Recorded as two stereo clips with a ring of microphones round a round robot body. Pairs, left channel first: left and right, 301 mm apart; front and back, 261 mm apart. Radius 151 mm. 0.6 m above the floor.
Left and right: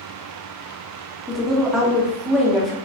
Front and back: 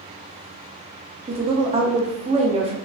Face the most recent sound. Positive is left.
turn(degrees=180)